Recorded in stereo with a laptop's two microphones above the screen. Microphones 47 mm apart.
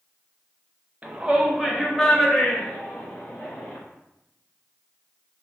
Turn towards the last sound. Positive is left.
turn(degrees=30)  # may be behind; listen again after turning